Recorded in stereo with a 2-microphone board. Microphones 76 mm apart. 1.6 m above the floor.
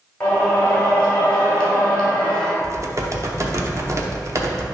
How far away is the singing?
About 2.5 m.